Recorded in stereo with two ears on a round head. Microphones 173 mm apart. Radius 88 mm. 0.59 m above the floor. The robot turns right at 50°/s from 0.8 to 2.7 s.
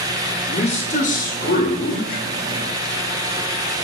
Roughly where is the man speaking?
Ahead left.